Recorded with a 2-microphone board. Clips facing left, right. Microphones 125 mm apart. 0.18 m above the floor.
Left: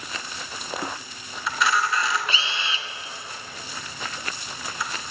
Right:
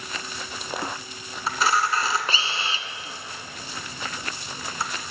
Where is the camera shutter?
35° right (ahead or behind), 0.7 m.